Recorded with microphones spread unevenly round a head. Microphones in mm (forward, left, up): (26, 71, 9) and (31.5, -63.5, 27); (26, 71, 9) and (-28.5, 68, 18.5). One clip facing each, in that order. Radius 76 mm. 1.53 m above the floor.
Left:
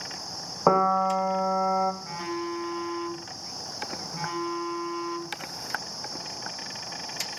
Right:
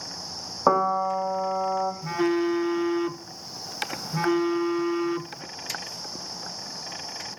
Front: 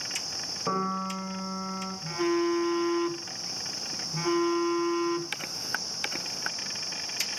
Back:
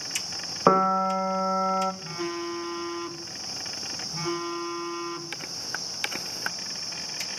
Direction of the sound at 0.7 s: Straight behind.